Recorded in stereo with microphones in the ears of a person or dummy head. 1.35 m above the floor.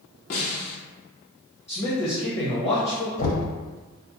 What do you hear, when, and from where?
0.3 s a snare drum: 45° left (ahead or behind), 0.7 m
1.7 s a man speaking: 15° left (ahead or behind), 1.0 m
3.2 s knocking: 50° left (ahead or behind), 0.8 m